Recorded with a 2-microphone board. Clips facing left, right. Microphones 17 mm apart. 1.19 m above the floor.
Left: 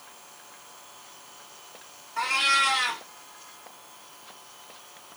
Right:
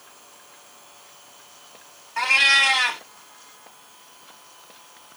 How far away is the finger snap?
No finger snap in this recording.